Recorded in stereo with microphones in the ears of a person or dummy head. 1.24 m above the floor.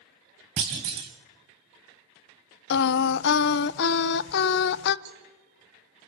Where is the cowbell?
65° right (ahead or behind), 5 m.